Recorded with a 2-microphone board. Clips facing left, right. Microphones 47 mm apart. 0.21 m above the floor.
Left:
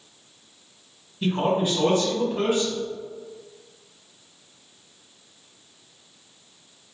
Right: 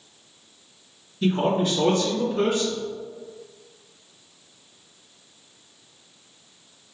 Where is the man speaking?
20° left (ahead or behind), 1.6 m.